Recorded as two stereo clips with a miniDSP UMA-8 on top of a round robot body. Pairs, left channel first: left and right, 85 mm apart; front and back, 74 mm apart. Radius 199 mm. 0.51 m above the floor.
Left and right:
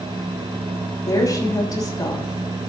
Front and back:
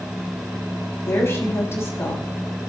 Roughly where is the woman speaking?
Ahead left.